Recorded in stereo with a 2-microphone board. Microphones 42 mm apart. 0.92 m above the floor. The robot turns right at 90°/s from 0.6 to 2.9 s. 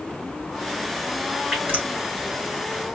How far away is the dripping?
About 3 m.